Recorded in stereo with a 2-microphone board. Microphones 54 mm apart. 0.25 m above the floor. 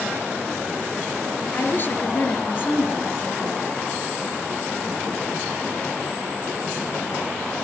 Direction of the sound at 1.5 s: 45° left (ahead or behind).